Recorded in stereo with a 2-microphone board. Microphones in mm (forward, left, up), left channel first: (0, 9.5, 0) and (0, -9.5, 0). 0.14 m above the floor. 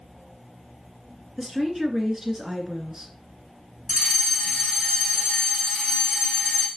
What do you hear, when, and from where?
1.4 s a woman speaking: 35° right (ahead or behind), 2 m
3.9 s a fire alarm: 20° right (ahead or behind), 2 m